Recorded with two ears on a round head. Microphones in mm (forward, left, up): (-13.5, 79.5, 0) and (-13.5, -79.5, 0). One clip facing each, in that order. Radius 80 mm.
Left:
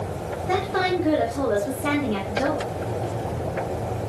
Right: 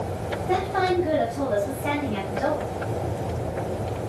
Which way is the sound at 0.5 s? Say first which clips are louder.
Even; 65° left (ahead or behind).